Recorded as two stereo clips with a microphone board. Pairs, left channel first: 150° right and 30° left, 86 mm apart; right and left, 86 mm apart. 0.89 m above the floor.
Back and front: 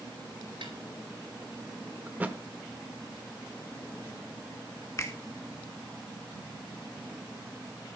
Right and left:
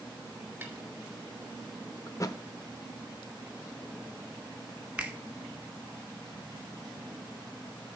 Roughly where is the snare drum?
Ahead.